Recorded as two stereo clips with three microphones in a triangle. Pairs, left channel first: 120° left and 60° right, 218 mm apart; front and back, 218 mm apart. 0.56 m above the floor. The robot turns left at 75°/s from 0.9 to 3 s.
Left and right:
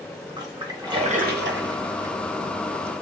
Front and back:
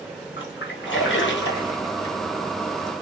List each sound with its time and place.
0.4 s a splash: 10° left, 0.7 m; by 2.1 s 85° right, 0.7 m